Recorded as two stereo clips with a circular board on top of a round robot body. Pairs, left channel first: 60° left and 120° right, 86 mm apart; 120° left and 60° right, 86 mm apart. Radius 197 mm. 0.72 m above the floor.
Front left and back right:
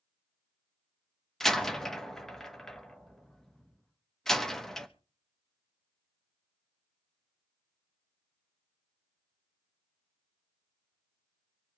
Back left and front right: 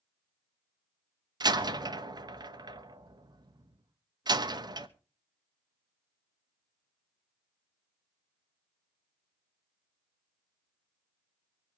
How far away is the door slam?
About 1.2 m.